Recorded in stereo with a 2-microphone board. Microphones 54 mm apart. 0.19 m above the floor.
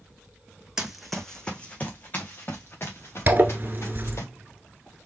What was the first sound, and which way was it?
Running footsteps, 10° right (ahead or behind).